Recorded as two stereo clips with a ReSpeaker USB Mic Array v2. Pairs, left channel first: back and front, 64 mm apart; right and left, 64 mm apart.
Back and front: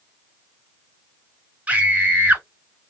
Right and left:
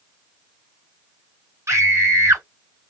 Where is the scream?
65° left, 1.8 m.